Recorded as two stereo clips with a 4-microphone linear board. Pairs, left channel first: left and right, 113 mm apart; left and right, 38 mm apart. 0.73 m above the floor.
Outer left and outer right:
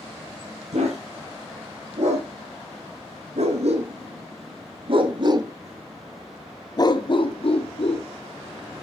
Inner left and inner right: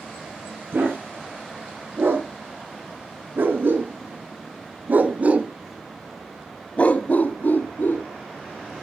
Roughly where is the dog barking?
Right.